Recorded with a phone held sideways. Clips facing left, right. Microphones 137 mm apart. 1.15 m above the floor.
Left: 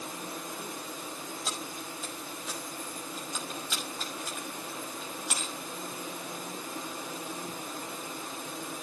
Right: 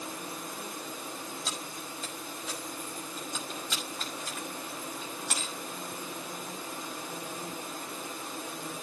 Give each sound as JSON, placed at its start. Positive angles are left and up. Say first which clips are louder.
{"t": 1.5, "sound": "keys jangling", "louder": "left 1 dB", "side_deg": 5, "distance_m": 6.0}